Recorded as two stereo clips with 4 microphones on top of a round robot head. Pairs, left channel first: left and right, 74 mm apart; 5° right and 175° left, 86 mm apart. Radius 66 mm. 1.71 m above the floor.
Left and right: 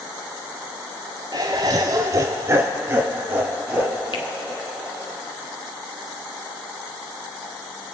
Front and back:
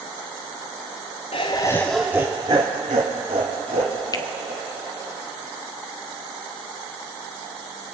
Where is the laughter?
30° right, 0.5 m; by 5.1 s 160° right, 1.9 m.